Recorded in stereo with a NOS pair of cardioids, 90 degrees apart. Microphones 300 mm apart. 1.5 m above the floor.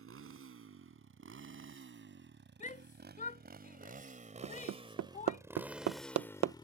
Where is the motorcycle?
45° right; by 6.7 s 15° left.